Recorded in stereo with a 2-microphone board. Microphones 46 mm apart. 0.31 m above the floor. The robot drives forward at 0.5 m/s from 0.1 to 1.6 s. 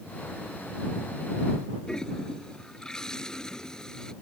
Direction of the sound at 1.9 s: 15° left (ahead or behind).